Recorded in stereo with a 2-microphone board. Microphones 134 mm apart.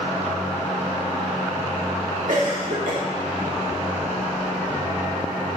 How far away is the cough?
About 2 m.